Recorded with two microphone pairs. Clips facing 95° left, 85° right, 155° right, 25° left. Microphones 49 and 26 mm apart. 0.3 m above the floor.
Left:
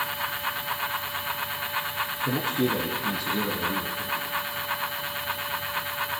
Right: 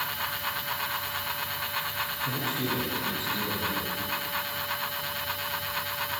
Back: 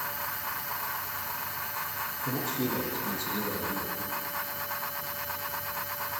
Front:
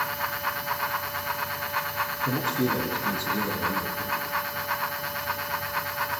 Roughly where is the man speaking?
Left.